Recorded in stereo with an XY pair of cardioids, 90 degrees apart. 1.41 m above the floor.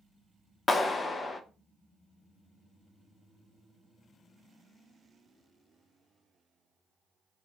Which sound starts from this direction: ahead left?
A clap, at 0.7 s.